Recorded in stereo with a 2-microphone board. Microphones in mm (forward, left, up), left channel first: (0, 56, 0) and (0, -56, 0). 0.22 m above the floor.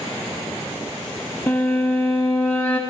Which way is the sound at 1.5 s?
15° left (ahead or behind).